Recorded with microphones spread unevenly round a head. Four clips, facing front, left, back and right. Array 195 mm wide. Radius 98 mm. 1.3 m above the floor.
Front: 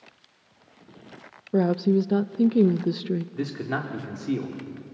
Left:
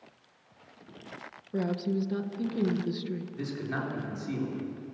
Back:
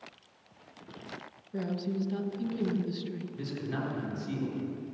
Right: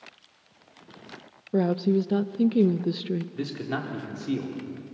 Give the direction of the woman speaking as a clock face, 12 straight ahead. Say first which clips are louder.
Right 7 dB, front 12 dB; 1 o'clock.